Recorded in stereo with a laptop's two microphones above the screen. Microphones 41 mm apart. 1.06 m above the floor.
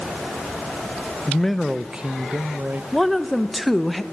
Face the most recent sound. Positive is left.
turn(degrees=0)  # may be behind; listen again after turning